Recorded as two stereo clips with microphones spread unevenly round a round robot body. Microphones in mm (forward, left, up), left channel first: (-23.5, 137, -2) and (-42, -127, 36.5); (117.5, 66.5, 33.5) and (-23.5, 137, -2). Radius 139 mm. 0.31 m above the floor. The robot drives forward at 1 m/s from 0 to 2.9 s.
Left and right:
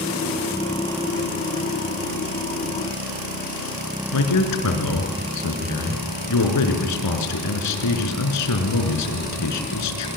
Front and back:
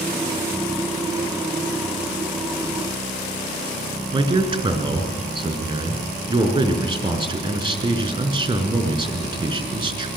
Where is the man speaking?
95° left, 4 m.